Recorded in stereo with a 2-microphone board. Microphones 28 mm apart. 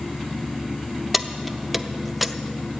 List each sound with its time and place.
1.1 s keys jangling: centre (ahead or behind), 0.5 m